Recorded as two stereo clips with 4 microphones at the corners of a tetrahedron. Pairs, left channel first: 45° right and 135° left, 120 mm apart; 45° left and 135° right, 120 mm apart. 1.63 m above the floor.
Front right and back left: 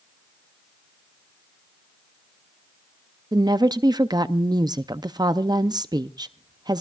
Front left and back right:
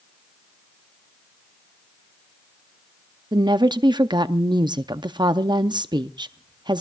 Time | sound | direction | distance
3.3 | a woman speaking | 175° right | 0.6 m